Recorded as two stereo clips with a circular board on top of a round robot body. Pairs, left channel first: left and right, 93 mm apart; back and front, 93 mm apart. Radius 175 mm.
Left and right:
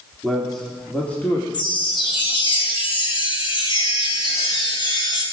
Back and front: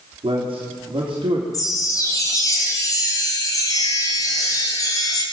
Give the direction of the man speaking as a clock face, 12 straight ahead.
12 o'clock.